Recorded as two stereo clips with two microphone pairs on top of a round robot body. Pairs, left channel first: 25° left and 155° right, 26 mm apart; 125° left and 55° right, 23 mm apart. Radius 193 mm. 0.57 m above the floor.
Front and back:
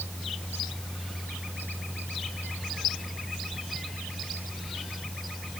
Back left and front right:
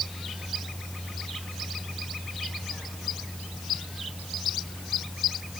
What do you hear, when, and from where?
Only background noise.